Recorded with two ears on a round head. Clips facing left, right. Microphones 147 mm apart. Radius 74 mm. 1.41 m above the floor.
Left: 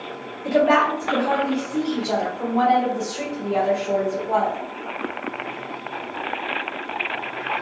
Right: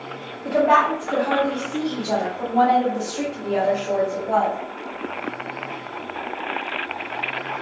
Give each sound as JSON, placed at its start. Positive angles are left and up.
{"t": 0.5, "sound": "a woman speaking", "side_deg": 15, "distance_m": 1.0}